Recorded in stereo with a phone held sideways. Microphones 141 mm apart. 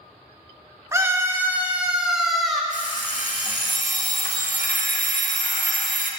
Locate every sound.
0.9 s a scream: 20° right (ahead or behind), 1.9 m; by 2.6 s centre (ahead or behind), 2.5 m
2.7 s an alarm clock: 65° left (ahead or behind), 1.7 m